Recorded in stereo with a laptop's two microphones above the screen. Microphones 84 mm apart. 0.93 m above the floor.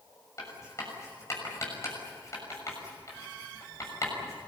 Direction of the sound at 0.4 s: 35° left (ahead or behind).